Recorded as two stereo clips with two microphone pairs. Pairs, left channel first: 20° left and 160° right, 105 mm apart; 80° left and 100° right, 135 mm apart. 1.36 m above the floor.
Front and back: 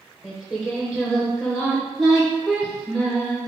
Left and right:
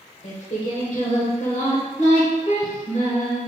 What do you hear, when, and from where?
0.2 s singing: 110° left, 1.2 m